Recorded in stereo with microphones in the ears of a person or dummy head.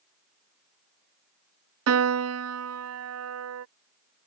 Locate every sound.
1.9 s a piano: 80° right